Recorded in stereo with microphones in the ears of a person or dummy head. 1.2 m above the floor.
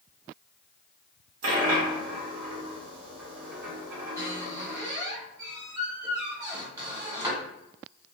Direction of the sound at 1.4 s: 55° right (ahead or behind).